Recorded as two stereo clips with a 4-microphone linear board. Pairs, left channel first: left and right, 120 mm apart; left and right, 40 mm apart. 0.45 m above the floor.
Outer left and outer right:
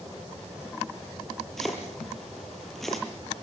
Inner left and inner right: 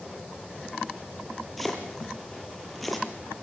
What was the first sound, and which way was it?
Chopping, centre (ahead or behind).